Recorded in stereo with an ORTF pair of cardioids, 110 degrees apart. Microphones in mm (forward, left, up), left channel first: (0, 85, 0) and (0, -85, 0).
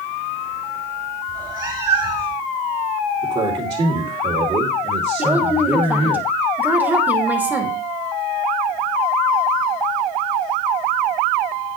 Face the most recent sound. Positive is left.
turn(degrees=-10)